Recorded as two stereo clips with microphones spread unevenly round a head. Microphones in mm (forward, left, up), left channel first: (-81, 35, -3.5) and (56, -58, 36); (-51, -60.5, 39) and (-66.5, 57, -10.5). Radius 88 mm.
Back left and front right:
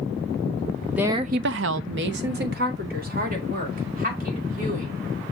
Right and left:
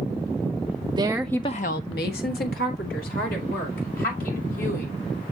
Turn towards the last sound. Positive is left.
turn(degrees=-75)